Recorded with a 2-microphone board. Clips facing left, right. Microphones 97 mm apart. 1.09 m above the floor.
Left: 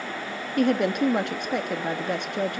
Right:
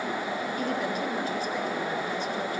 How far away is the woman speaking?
About 1.6 m.